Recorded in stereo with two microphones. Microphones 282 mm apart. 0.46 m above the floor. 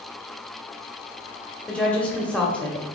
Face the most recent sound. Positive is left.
turn(degrees=5)  # may be behind; listen again after turning